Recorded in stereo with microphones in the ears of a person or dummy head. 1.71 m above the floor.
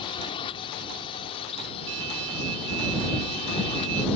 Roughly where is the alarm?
Right.